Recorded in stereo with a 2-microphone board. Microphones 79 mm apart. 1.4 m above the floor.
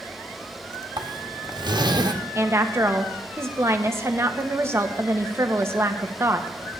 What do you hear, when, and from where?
1.0 s a zipper: 65° right (ahead or behind), 1.4 m
2.4 s a woman speaking: 35° right (ahead or behind), 1.3 m